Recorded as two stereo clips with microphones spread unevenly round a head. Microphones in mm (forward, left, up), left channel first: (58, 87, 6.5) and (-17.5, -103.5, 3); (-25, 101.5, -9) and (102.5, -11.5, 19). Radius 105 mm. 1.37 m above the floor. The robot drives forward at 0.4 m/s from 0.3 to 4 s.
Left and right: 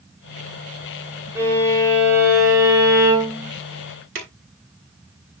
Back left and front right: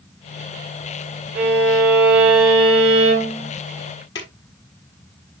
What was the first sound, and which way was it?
A violin, 35° right.